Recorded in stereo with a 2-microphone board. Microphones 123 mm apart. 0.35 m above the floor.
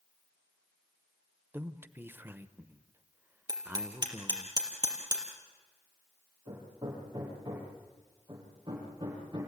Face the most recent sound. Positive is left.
turn(degrees=-35)  # may be behind; listen again after turning